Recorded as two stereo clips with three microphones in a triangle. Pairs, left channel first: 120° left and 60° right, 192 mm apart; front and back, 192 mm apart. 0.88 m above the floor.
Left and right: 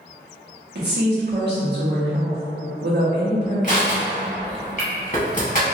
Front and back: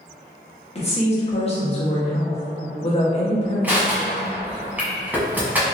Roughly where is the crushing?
Left.